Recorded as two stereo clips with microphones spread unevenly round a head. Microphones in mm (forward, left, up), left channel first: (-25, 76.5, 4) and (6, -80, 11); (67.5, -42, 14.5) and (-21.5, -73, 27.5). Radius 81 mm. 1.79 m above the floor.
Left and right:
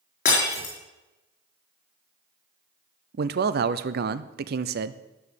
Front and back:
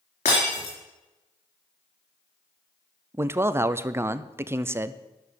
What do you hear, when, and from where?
0.2 s breaking glass: 55° left, 4 m
3.1 s a man speaking: 100° right, 0.6 m